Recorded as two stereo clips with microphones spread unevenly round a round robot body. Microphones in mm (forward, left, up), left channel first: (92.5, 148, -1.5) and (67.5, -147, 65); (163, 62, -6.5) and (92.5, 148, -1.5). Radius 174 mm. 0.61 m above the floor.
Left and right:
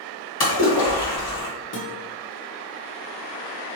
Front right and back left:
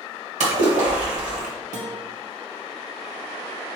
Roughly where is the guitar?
Behind left.